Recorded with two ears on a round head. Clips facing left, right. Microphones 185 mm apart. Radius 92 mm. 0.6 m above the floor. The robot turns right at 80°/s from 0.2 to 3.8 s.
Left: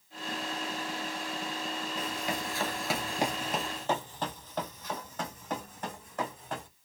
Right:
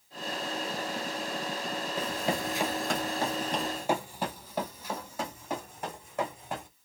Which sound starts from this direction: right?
Running footsteps, at 2.0 s.